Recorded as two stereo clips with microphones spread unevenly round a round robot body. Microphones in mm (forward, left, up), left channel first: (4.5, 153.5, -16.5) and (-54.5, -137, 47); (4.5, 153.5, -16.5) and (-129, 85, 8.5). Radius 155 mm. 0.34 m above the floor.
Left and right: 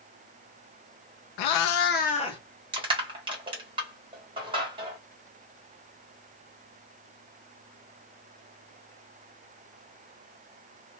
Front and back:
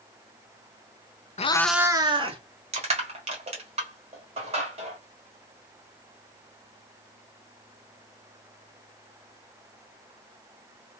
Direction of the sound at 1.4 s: 80° left.